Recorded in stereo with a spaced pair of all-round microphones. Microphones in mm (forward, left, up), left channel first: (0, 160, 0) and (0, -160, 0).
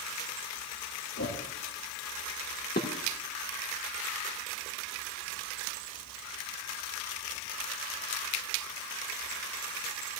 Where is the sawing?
No sawing in this recording.